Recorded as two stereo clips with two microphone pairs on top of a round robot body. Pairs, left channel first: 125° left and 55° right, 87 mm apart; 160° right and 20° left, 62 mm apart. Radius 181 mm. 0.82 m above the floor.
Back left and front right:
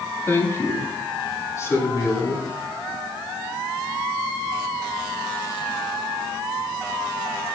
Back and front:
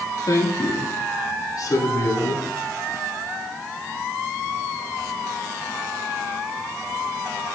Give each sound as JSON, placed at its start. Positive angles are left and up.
{"t": 0.3, "sound": "a woman speaking", "azimuth_deg": -170, "distance_m": 2.5}